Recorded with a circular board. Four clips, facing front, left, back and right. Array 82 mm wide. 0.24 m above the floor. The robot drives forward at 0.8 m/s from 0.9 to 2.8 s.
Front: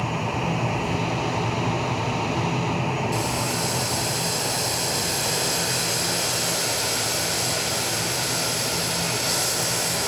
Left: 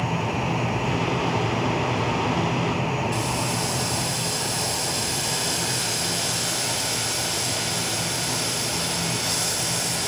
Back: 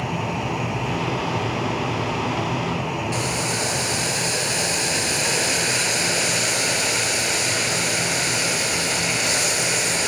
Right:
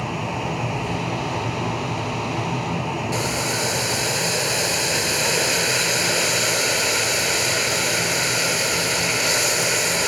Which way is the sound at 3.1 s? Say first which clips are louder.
Right 2 dB, back 1 dB; 130° right.